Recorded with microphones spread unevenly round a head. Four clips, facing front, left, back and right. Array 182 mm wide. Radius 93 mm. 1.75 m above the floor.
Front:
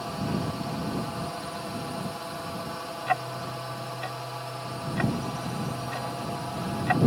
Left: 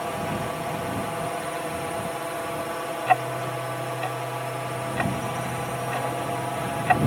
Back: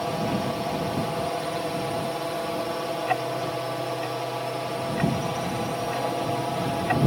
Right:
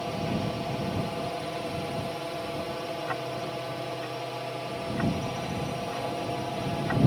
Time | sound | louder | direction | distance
0.0 | a drone | left 2 dB, back 4 dB | 175° left | ?
3.1 | ticking | left 9 dB, even | 70° left | ?